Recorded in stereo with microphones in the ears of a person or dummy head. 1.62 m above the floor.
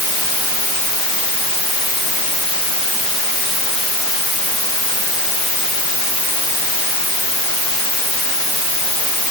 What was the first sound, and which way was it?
Only background noise.